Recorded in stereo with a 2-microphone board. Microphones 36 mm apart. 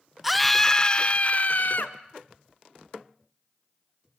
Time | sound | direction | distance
0.2 | a scream | 5° right (ahead or behind) | 0.9 m